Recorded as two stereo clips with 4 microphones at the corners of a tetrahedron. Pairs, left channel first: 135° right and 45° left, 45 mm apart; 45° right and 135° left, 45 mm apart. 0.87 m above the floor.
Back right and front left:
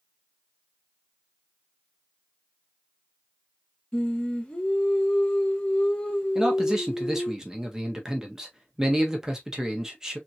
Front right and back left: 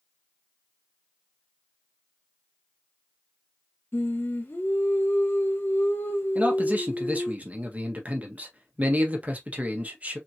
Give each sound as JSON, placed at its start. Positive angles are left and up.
{"t": 3.9, "sound": "singing", "azimuth_deg": -65, "distance_m": 1.3}
{"t": 6.3, "sound": "a man speaking", "azimuth_deg": 115, "distance_m": 1.2}